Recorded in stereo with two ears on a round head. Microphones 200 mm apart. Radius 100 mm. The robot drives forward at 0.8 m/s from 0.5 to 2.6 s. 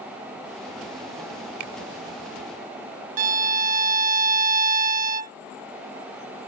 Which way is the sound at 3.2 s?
35° right (ahead or behind).